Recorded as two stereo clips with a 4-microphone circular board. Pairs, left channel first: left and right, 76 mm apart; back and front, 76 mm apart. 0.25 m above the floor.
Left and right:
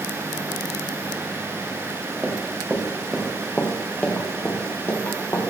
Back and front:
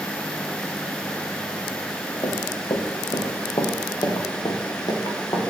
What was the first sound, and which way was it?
Running footsteps, 160° right.